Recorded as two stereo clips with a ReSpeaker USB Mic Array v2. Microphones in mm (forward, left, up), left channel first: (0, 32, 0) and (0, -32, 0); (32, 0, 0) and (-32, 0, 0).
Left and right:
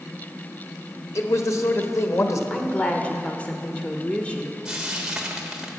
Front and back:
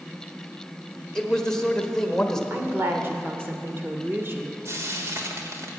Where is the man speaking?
75° left, 1.2 m.